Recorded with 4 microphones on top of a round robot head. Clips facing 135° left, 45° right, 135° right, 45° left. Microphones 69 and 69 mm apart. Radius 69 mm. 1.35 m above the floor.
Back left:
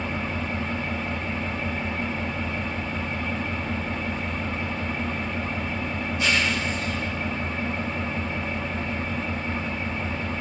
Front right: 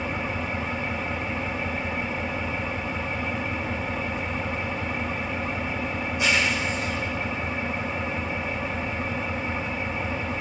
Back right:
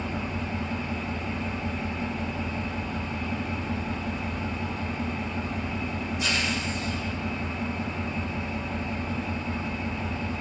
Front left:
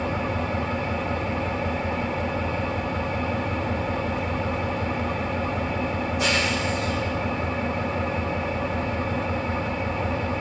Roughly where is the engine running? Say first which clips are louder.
Even, front left 5 dB; ahead left.